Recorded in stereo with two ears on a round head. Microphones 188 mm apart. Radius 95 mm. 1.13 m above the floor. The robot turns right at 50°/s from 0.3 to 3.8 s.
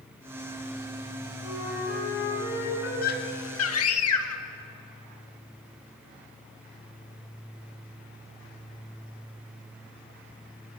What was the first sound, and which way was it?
A flute, 25° right.